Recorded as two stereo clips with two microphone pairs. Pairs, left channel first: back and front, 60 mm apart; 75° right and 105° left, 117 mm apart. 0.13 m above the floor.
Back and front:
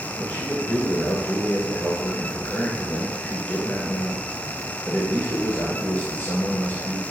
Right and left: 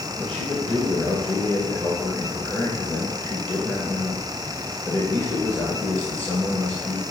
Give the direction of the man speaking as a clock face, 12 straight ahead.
5 o'clock.